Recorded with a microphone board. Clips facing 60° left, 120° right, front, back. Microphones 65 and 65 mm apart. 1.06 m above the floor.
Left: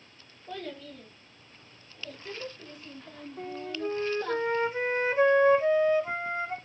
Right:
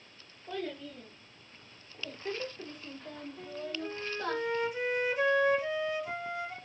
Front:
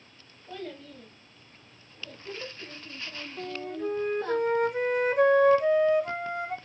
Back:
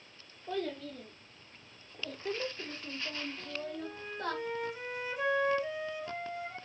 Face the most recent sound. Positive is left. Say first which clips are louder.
# left 5 dB, front 6 dB
turn(degrees=10)